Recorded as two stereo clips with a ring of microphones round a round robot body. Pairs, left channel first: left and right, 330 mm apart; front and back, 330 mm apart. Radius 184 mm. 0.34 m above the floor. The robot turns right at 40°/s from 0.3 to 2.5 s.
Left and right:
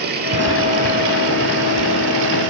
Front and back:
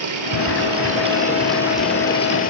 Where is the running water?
150° right, 8.5 m; by 2.5 s 65° right, 8.5 m.